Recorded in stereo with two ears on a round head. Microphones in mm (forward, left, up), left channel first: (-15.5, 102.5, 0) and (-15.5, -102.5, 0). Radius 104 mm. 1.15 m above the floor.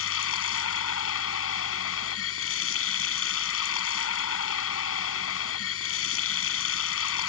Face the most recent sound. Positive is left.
turn(degrees=70)  # may be behind; listen again after turning